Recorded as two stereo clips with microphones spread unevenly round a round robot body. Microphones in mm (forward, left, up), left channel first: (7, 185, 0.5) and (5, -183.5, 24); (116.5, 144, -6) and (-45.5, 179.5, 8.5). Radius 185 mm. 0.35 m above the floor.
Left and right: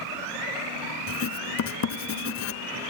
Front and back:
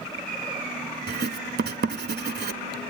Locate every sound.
1.1 s writing: 140° left, 0.9 m